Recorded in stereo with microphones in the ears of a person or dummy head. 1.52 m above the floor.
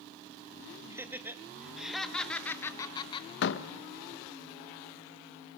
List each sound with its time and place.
0.9 s laughter: 15° right (ahead or behind), 3 m; by 3.3 s 30° left (ahead or behind), 2.0 m
3.4 s a door slam: 70° left (ahead or behind), 1.4 m